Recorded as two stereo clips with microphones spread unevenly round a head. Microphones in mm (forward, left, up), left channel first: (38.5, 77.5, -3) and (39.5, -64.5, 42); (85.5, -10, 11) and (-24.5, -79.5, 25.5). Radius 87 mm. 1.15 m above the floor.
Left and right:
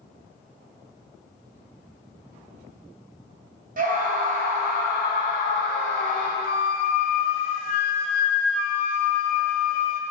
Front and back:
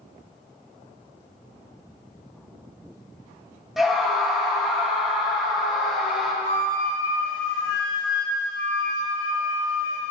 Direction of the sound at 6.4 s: 60° left.